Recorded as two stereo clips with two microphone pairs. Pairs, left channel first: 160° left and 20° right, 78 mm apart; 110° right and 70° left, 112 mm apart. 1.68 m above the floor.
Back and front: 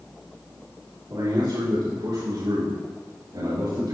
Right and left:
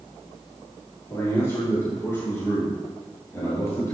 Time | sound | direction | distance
1.1 | a man speaking | 45° right | 4.5 m